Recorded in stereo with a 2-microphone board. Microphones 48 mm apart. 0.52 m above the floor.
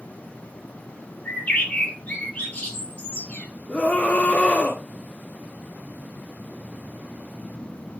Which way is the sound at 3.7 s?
30° left (ahead or behind).